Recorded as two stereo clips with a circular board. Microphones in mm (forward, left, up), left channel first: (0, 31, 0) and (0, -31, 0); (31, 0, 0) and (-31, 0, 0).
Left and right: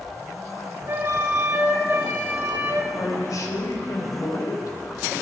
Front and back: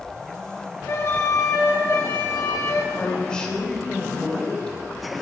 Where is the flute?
40° right, 2.5 m.